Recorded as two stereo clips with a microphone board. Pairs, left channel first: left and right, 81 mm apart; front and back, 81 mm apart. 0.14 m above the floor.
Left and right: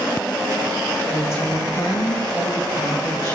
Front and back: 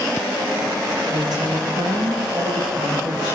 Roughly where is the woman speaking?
Behind left.